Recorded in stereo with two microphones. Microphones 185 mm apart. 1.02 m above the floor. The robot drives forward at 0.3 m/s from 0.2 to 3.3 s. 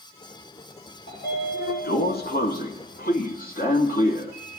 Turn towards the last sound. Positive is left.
turn(degrees=55)  # may be behind; listen again after turning